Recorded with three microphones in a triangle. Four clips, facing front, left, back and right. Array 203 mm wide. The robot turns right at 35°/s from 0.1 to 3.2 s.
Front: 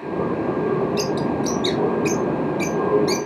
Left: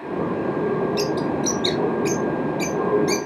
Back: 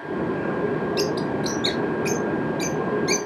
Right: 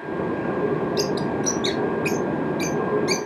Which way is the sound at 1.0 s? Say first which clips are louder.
Left 1 dB, front 2 dB; 150° right.